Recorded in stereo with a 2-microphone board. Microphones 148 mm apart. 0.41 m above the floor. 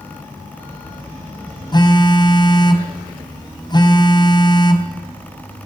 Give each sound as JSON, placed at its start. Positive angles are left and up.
{"t": 1.7, "sound": "a phone buzzing", "side_deg": 30, "distance_m": 2.5}